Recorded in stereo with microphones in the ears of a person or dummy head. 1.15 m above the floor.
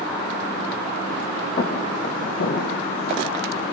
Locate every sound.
1.6 s footsteps: 40° left (ahead or behind), 3.5 m; by 3.6 s 60° left (ahead or behind), 3.5 m